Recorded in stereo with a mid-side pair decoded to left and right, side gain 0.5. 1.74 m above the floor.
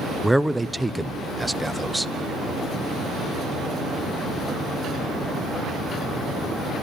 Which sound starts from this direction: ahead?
A man speaking, at 0.2 s.